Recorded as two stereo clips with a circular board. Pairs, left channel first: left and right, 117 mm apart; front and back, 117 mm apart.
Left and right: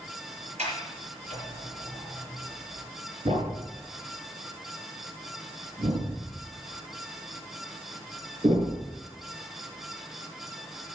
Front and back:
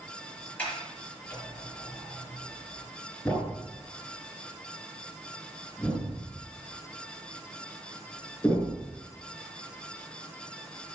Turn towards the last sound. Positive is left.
turn(degrees=-80)